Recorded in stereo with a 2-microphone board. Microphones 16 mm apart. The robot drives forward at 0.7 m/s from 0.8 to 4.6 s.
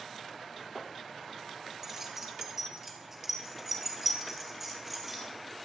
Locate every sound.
1.8 s keys jangling: 25° right (ahead or behind), 2.5 m; by 5.2 s 15° right (ahead or behind), 4.5 m